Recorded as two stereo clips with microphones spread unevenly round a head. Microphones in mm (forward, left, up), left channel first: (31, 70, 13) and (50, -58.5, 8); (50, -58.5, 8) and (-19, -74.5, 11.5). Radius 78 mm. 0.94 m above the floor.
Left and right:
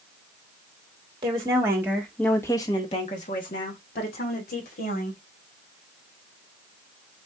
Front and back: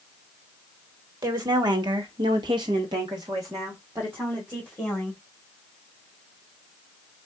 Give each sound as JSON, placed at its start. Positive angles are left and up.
{"t": 1.2, "sound": "a woman speaking", "azimuth_deg": -140, "distance_m": 1.4}